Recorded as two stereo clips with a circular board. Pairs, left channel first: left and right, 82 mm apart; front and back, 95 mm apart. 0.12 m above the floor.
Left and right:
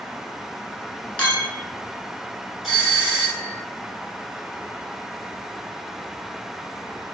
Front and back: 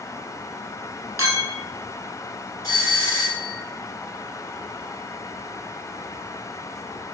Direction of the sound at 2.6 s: 10° right.